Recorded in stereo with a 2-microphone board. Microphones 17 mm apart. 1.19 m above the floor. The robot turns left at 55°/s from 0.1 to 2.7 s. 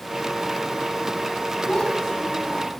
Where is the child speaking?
70° left, 8 m; by 2.8 s 15° left, 8 m.